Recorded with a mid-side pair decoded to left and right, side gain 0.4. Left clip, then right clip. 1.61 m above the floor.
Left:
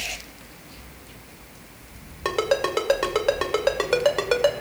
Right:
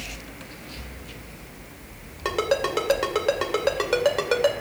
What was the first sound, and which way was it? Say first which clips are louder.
A ringtone: left 1 dB; 15° left.